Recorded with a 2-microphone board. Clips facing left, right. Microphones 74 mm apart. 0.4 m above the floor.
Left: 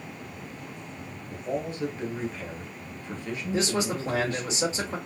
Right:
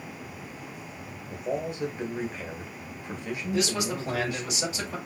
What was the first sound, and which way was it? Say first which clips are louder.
A man speaking: right 1 dB; 15° right (ahead or behind).